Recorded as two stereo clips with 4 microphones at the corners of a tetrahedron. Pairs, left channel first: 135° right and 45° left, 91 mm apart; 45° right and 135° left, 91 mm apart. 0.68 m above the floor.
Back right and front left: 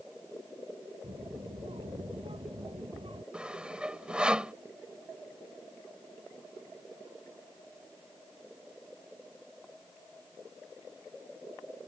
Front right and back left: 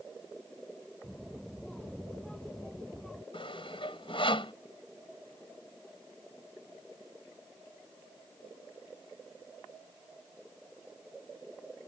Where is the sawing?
35° right.